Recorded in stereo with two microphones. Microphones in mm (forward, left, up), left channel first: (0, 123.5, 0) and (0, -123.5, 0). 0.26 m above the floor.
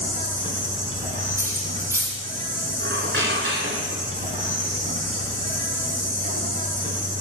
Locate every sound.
0.0 s an insect: 30° right (ahead or behind), 1.6 m
1.4 s cutlery clinking: 10° right (ahead or behind), 1.4 m
2.8 s a squeak: 50° right (ahead or behind), 1.4 m